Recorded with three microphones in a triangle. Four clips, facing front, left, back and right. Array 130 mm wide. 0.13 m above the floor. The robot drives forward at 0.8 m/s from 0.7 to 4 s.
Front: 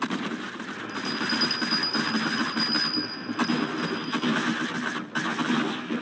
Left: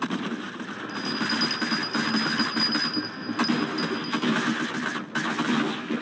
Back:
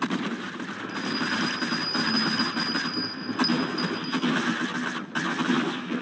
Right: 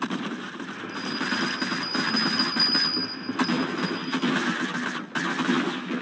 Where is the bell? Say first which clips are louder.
Left 1 dB, back 1 dB; 55° left, 2.5 m; by 4.2 s 120° left, 2.5 m.